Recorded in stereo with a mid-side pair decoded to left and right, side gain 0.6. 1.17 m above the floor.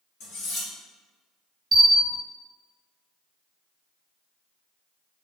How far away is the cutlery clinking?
About 1.4 m.